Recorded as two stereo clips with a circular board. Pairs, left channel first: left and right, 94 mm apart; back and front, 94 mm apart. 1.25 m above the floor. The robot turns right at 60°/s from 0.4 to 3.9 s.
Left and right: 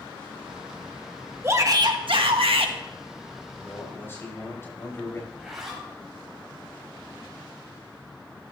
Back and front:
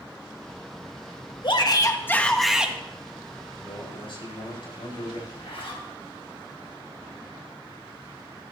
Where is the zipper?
175° right, 4.5 m.